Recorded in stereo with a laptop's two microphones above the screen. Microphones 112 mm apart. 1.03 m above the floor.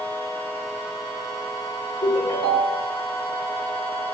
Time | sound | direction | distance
2.0 | a ringtone | 45° left (ahead or behind) | 1.4 m